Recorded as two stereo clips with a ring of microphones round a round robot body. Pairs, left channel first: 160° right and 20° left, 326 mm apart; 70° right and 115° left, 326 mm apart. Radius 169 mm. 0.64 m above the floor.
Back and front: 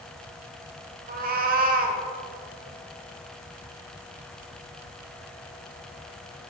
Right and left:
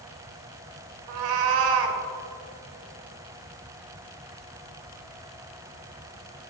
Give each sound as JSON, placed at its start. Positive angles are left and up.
{"t": 1.1, "sound": "a cat meowing", "azimuth_deg": 90, "distance_m": 1.1}